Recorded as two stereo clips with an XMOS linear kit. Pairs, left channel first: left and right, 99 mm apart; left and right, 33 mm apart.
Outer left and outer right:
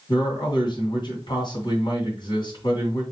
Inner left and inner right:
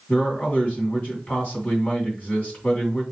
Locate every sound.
0.1 s a man speaking: 50° left (ahead or behind), 2.5 m